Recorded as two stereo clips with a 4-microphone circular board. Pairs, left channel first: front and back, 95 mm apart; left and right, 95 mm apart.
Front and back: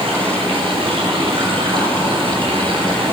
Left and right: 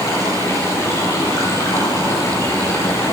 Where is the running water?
150° left, 5 m.